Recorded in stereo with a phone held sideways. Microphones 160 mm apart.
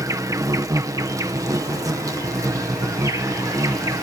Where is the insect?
20° right (ahead or behind).